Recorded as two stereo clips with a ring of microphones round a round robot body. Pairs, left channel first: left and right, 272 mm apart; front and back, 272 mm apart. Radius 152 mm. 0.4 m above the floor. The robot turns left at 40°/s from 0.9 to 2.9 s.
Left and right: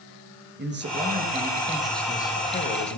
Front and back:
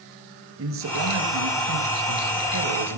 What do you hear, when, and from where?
0.6 s a man speaking: 140° right, 7 m; by 3.0 s 140° left, 7 m